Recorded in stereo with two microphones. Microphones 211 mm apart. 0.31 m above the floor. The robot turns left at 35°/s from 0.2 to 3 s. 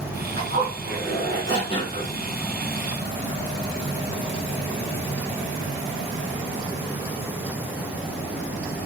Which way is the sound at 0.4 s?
50° right.